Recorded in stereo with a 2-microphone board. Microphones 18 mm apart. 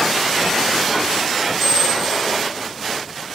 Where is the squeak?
Centre (ahead or behind), 5.5 m.